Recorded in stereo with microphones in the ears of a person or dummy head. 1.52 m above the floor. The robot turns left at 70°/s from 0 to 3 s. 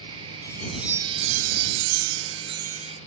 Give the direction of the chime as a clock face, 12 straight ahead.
11 o'clock.